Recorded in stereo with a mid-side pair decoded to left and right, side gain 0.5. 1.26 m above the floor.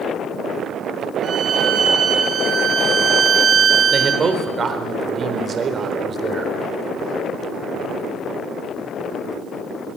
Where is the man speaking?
35° right, 4 m.